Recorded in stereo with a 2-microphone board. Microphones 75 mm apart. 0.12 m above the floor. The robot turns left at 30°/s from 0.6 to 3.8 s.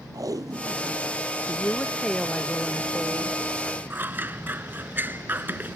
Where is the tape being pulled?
55° right (ahead or behind); by 1.2 s 40° right (ahead or behind).